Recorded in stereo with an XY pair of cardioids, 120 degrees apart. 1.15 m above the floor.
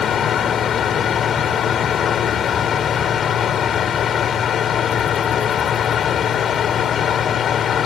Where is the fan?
50° left.